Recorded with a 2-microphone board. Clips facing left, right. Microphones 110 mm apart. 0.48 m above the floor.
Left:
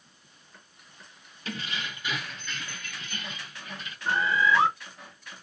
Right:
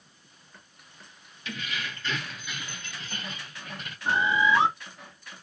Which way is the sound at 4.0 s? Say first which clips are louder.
Right 1 dB; 20° right (ahead or behind).